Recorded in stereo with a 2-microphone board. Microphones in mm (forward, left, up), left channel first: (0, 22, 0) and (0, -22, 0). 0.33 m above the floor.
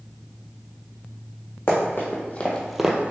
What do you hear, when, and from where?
1.7 s running footsteps: 55° left (ahead or behind), 1.5 m; by 3.1 s 40° right (ahead or behind), 0.6 m